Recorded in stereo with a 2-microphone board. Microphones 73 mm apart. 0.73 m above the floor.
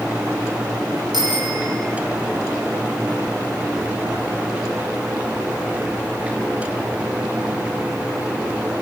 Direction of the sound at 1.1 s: 75° right (ahead or behind).